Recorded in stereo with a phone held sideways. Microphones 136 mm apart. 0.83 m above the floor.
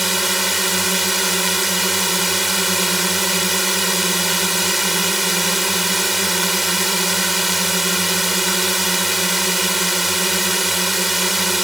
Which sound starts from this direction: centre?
A drone, at 0.0 s.